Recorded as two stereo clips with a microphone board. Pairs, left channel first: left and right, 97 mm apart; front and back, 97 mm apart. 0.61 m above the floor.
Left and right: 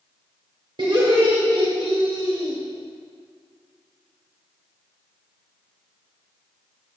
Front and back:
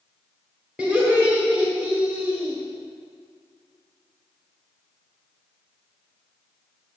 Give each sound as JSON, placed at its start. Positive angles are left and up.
{"t": 0.8, "sound": "laughter", "azimuth_deg": -105, "distance_m": 1.8}